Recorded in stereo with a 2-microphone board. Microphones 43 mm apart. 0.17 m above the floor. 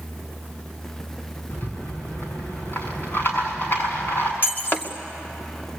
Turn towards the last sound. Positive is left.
turn(degrees=40)  # may be behind; listen again after turning